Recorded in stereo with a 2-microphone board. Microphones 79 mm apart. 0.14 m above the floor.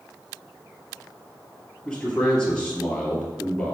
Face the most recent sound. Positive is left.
turn(degrees=10)  # may be behind; listen again after turning